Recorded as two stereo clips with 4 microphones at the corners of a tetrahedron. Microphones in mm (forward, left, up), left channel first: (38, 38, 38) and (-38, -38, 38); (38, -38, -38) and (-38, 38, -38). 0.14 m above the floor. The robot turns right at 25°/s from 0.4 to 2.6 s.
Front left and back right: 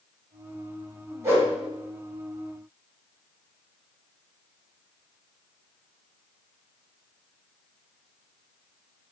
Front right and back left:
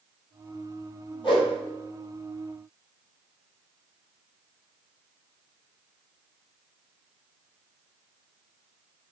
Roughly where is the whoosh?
Right.